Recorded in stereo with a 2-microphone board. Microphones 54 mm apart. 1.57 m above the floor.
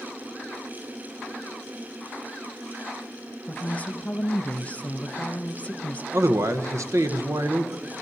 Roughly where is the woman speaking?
Left.